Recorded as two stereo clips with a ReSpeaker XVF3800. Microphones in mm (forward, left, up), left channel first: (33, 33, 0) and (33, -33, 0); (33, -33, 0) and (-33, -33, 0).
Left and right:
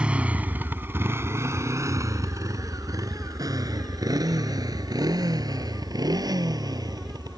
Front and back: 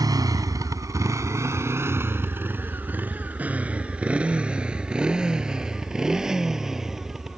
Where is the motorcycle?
165° right; by 7.4 s 95° right.